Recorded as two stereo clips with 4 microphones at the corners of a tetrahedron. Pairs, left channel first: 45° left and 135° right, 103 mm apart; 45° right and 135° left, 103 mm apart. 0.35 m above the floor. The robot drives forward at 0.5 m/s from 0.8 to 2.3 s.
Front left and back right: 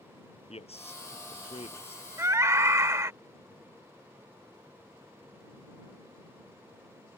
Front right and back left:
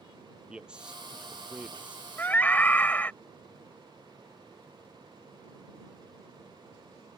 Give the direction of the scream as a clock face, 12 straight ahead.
3 o'clock.